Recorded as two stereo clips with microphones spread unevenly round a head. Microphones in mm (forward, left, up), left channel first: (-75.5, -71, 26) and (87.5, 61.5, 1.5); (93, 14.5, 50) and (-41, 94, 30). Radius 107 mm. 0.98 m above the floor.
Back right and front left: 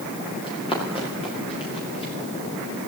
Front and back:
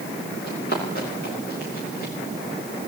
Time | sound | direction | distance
0.4 | running footsteps | 75° right | 9 m